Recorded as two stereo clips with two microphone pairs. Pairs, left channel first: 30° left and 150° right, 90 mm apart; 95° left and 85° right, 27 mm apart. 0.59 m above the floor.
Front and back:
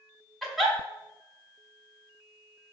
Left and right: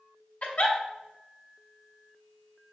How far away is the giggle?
About 0.9 m.